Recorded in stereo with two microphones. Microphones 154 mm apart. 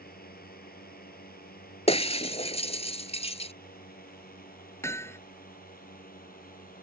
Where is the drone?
80° left; by 6.8 s 70° left (ahead or behind).